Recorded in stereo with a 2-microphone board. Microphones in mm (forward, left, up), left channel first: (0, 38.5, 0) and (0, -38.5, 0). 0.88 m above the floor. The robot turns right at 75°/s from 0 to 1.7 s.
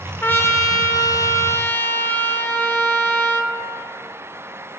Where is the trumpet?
30° left, 0.8 m; by 3.5 s 145° left, 0.8 m.